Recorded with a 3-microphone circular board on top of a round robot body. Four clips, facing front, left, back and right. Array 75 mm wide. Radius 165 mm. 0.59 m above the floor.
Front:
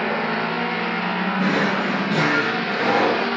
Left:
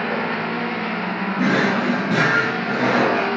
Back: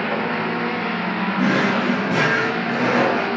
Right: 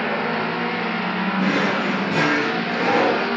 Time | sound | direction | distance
1.4 | a drawer | 105° left | 4.5 m